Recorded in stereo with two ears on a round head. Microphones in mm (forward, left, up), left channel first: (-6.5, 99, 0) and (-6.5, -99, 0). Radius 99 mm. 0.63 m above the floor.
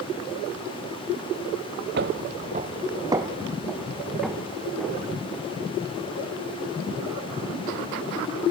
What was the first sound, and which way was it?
Footsteps, 50° right (ahead or behind).